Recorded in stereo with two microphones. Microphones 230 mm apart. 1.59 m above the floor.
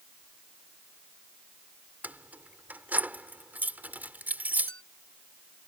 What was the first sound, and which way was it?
Keys jangling, 5° right (ahead or behind).